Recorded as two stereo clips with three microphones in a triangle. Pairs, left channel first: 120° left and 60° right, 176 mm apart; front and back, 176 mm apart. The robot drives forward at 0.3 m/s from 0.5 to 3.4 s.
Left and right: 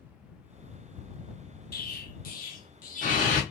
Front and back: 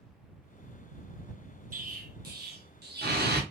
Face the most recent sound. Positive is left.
turn(degrees=160)